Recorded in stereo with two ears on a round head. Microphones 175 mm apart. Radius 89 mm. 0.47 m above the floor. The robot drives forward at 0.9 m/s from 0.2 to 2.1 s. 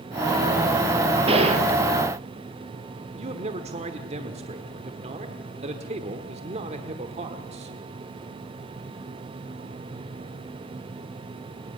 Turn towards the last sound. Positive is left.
turn(degrees=-35)  # may be behind; listen again after turning